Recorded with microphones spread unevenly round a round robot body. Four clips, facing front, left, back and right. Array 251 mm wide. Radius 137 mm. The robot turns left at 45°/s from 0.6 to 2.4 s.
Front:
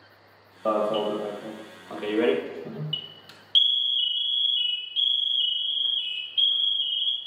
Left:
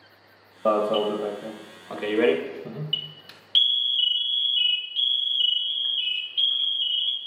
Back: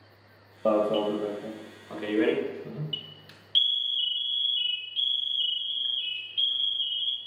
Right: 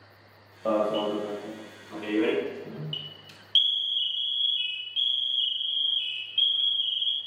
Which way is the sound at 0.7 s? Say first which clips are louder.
Left 3 dB, even; 140° left.